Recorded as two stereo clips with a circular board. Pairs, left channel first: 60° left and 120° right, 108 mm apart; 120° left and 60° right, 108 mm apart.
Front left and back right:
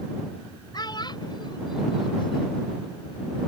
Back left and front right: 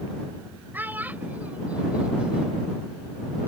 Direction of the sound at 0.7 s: 10° left.